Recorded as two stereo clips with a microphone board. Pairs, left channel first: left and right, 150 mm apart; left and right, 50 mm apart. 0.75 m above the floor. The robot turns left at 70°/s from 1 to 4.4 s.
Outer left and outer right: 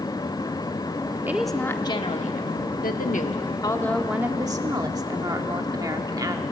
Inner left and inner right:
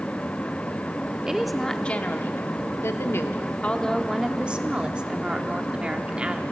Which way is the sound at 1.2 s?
165° right.